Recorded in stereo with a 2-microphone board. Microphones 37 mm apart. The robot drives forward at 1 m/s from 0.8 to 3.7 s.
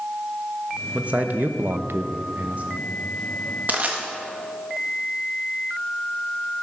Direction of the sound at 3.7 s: 45° right (ahead or behind).